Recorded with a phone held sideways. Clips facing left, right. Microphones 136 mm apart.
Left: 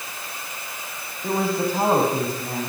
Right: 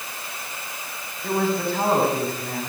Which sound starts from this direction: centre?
A man speaking, at 1.2 s.